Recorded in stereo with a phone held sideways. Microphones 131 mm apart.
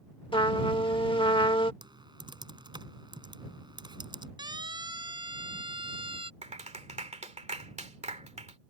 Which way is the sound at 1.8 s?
35° right (ahead or behind).